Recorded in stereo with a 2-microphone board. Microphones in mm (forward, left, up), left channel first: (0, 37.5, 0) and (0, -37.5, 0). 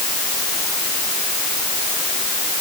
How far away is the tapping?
No tapping in this recording.